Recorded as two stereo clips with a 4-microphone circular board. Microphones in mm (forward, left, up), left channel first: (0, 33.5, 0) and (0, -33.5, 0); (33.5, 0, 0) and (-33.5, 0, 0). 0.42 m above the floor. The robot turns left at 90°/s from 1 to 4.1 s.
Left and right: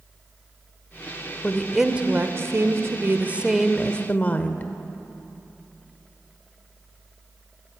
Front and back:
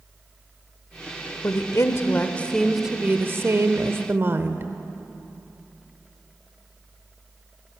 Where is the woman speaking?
25° left, 1.1 m; by 4.7 s 145° left, 1.1 m.